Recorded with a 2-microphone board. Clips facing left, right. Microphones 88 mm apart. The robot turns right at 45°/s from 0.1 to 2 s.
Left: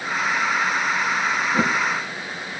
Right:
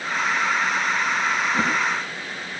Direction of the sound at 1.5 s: 15° left (ahead or behind).